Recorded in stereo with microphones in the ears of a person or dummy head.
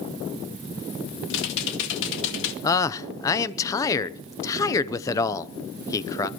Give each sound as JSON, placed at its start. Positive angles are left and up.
{"t": 1.3, "sound": "typing on a keyboard", "side_deg": 65, "distance_m": 2.0}
{"t": 2.6, "sound": "a man speaking", "side_deg": 15, "distance_m": 0.8}